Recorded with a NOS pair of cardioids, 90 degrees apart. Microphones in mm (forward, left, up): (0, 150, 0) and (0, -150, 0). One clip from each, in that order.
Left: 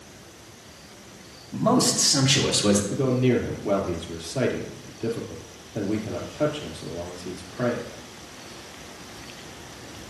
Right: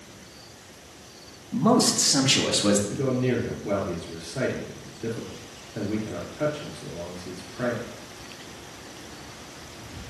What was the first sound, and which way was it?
A man speaking, 20° right.